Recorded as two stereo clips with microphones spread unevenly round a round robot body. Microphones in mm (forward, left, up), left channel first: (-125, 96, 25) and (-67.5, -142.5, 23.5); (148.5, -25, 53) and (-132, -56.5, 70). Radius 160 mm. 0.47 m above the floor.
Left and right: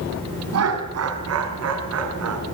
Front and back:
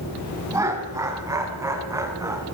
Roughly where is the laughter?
Right.